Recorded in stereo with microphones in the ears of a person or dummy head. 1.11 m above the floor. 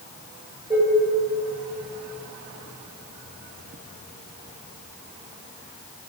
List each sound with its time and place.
0.7 s dishes clattering: 15° right (ahead or behind), 4 m